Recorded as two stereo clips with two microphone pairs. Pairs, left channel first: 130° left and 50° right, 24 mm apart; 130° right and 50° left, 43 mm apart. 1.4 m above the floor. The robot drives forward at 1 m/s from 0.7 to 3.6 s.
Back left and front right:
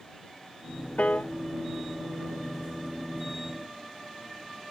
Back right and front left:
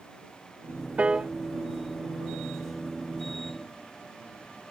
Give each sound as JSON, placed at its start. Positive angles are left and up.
{"t": 1.0, "sound": "a piano", "azimuth_deg": 105}